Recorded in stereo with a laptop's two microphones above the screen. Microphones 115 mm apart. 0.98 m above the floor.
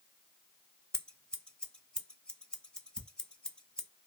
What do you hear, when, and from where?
0.9 s scissors: 5° left (ahead or behind), 0.6 m
3.0 s ticking: 5° right (ahead or behind), 1.0 m